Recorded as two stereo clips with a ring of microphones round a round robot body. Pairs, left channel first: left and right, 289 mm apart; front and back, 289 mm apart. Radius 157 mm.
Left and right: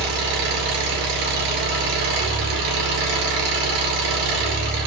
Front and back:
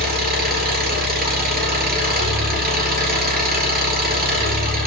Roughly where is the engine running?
Behind right.